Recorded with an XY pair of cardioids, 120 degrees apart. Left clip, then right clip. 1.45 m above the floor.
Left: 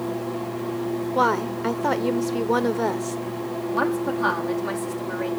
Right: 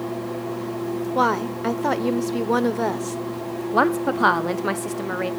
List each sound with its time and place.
1.1 s a woman speaking: 5° right, 0.7 m
3.7 s a woman speaking: 50° right, 0.7 m